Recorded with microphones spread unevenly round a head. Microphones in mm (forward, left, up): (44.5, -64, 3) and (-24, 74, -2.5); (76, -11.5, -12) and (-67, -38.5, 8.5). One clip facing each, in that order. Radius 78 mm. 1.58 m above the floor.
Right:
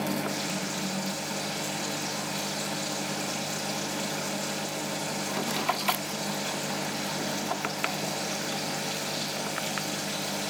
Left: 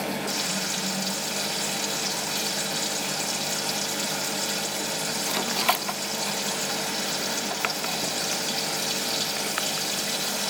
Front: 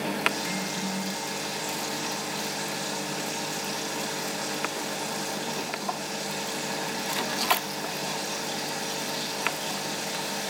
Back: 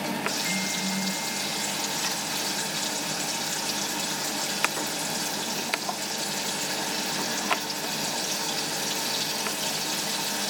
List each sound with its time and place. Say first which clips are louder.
0.3 s frying: left 1 dB, front 1 dB; 145° left, 3.5 m